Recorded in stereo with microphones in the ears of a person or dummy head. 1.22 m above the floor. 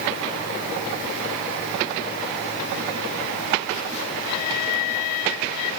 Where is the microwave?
I don't hear a microwave.